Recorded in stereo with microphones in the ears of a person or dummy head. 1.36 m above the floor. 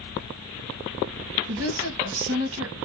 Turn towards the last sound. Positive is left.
turn(degrees=-80)